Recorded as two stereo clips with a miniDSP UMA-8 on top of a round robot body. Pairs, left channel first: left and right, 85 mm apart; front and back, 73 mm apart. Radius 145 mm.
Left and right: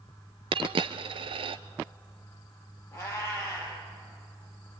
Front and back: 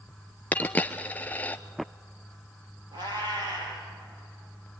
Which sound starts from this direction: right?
A dropped coin, at 0.5 s.